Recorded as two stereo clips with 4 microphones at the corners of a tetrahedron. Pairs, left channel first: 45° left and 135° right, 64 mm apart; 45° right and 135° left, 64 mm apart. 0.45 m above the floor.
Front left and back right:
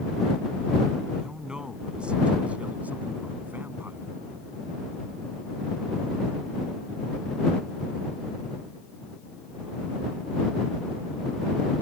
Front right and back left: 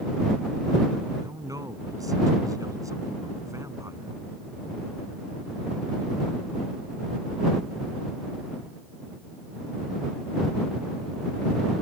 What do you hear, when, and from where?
1.2 s a man speaking: 145° left; by 4.1 s 170° left